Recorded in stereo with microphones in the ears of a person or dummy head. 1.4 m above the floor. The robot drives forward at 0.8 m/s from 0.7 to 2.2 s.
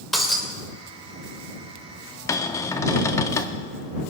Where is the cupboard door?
20° left (ahead or behind), 0.5 m.